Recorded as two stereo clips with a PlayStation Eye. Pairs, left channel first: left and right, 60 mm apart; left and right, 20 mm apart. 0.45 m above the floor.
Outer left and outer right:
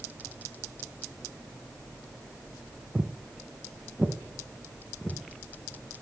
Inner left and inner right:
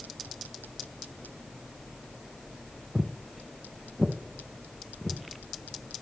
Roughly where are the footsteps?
Right.